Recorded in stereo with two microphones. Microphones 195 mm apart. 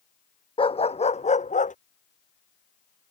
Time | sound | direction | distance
0.6 | a dog barking | 30° left (ahead or behind) | ?